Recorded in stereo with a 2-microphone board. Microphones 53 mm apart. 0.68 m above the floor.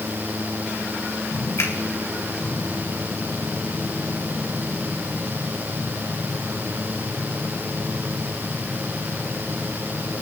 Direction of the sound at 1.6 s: 65° left (ahead or behind).